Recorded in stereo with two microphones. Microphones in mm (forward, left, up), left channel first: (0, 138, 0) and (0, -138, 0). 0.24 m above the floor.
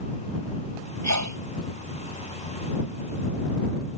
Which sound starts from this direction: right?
A sneeze, at 1.0 s.